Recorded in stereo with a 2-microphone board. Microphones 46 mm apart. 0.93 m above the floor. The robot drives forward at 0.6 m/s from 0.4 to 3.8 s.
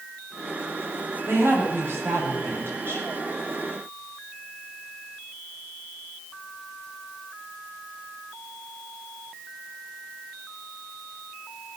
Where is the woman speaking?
55° right (ahead or behind), 7 m; by 3.1 s 50° right (ahead or behind), 7.5 m.